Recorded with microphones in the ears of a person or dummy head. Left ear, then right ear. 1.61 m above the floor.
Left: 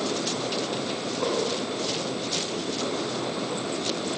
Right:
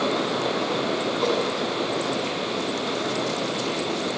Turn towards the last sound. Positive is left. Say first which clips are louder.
# right 2 dB
turn(degrees=-20)  # may be behind; listen again after turning